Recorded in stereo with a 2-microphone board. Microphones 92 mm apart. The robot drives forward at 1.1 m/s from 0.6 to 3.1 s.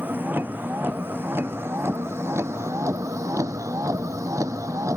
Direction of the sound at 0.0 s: 20° right (ahead or behind).